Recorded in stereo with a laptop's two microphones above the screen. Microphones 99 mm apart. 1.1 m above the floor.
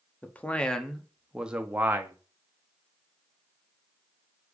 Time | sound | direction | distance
0.2 | a man speaking | 20° left (ahead or behind) | 1.5 m